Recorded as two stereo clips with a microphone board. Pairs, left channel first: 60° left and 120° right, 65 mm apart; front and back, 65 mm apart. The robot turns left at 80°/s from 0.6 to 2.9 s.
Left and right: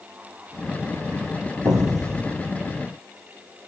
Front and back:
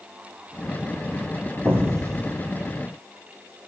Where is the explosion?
115° right, 1.7 m; by 2.4 s 175° right, 1.7 m.